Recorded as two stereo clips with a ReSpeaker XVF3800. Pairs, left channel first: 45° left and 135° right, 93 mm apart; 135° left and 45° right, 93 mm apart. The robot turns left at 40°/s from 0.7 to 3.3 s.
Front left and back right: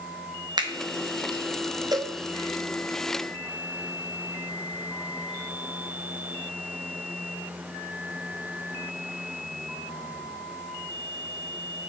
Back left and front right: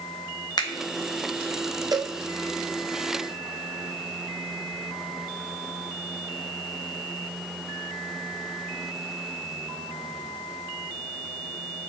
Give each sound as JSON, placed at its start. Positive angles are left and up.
{"t": 0.6, "sound": "a finger snap", "azimuth_deg": 180, "distance_m": 1.0}
{"t": 1.9, "sound": "a cowbell", "azimuth_deg": -90, "distance_m": 0.7}